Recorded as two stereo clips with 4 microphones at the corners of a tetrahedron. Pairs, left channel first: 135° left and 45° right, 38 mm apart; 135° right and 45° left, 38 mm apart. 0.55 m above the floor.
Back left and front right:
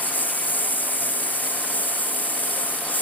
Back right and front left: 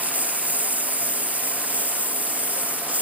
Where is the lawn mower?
95° left.